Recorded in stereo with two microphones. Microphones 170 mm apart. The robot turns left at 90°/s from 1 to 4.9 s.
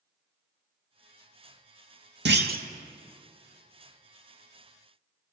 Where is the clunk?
90° right, 0.6 m; by 2.6 s 125° right, 0.6 m.